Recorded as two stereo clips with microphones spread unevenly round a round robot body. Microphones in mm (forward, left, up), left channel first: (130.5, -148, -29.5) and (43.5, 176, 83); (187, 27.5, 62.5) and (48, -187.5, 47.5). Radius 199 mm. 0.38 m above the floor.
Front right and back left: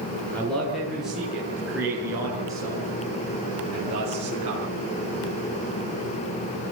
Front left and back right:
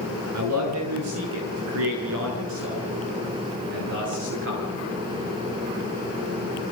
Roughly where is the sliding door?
No sliding door in this recording.